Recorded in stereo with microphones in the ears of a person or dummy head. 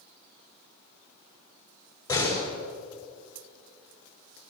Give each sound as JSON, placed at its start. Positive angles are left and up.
{"t": 2.1, "sound": "a door slam", "side_deg": 20, "distance_m": 6.0}